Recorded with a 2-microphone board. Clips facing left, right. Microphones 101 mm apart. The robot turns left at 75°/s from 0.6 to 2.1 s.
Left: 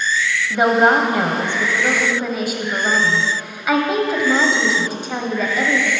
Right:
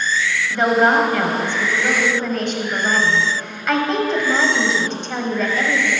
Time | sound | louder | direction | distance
0.5 | a woman speaking | left 1 dB | 15° left (ahead or behind) | 0.9 m